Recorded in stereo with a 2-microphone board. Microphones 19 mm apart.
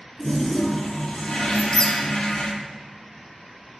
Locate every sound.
0.2 s a toilet flushing: 50° left (ahead or behind), 3 m
1.5 s a squeak: 40° left (ahead or behind), 1.4 m